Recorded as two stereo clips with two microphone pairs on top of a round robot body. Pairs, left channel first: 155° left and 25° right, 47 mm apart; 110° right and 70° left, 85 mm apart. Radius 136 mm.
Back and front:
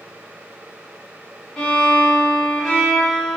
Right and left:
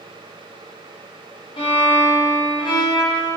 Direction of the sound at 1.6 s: 130° right.